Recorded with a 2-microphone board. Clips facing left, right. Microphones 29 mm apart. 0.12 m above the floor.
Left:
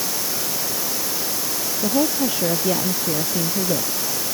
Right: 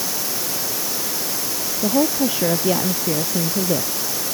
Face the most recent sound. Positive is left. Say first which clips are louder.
# right 2 dB
turn(degrees=-15)  # may be behind; listen again after turning